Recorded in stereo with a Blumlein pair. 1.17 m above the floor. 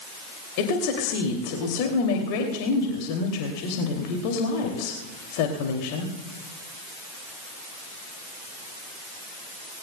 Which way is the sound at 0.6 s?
45° left.